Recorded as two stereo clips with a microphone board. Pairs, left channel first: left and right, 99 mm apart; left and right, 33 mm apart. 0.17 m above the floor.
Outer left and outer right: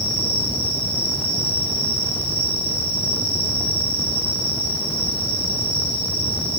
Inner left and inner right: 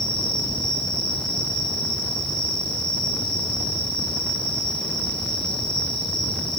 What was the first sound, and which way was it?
An insect, 15° left (ahead or behind).